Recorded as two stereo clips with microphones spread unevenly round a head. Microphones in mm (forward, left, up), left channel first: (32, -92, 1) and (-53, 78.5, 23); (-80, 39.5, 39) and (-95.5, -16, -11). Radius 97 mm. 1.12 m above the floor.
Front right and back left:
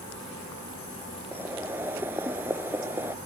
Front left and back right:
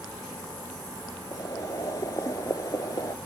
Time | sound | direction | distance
1.3 | boiling | 40° left | ?